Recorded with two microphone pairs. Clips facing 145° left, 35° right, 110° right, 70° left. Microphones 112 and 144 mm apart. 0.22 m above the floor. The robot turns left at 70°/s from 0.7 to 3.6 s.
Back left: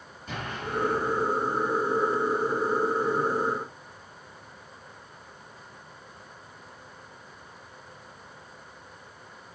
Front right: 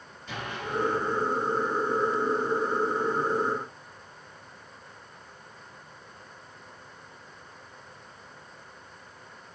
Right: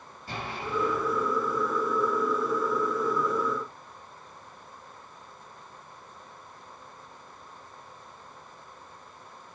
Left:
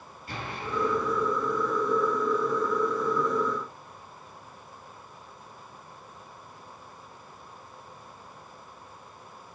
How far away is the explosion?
About 6 m.